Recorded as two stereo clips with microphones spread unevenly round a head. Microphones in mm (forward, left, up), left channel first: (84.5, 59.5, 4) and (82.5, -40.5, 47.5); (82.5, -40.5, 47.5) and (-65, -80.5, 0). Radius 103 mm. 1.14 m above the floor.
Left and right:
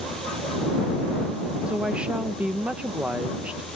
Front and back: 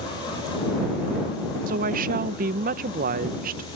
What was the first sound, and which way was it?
A woman speaking, straight behind.